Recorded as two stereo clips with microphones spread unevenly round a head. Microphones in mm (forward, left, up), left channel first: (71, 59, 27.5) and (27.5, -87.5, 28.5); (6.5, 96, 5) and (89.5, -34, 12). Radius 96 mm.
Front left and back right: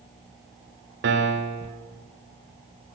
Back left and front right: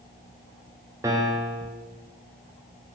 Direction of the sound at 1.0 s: 135° right.